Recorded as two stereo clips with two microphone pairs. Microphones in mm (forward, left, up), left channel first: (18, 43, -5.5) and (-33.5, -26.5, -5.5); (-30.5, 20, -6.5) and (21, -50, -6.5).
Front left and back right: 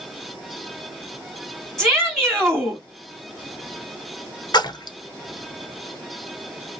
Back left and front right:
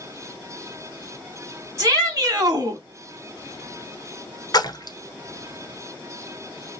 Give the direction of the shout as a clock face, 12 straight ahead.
1 o'clock.